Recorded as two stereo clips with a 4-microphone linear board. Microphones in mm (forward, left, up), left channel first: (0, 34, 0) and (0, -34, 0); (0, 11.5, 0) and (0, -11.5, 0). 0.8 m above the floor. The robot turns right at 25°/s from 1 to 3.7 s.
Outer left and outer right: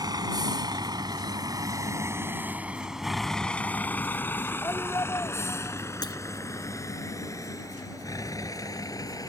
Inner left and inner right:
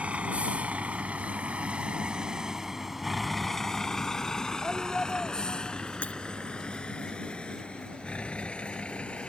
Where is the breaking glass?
85° left.